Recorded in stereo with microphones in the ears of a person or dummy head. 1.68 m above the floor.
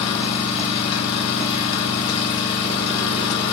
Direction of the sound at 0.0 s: 35° left (ahead or behind).